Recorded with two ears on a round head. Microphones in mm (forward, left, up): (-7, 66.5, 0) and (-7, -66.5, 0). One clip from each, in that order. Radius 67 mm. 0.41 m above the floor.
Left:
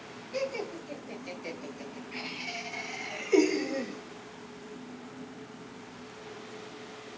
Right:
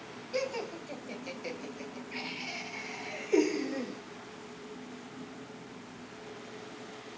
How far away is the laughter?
About 2.5 m.